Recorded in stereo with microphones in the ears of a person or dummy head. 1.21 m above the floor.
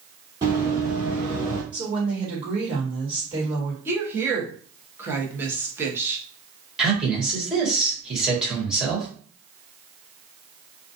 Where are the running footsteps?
20° right (ahead or behind), 1.6 m; by 1.6 s 5° left (ahead or behind), 1.2 m.